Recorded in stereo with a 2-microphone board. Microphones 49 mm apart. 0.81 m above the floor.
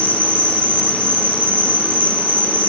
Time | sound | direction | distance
0.0 | an insect | 35° left (ahead or behind) | 1.5 m